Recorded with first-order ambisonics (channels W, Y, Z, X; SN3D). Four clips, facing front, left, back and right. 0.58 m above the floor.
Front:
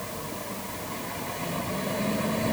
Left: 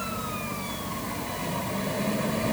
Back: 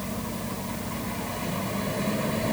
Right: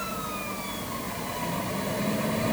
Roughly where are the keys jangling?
I don't hear keys jangling.